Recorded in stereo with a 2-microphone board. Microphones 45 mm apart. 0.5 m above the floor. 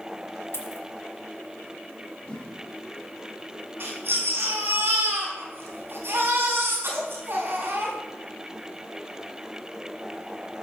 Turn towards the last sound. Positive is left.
turn(degrees=-65)  # may be behind; listen again after turning